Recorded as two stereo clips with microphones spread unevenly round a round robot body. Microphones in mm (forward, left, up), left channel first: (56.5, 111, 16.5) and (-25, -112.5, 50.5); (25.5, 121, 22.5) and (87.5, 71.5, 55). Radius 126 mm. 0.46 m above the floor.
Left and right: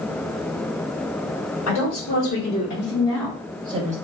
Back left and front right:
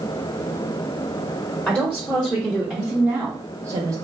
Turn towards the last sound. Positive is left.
turn(degrees=-85)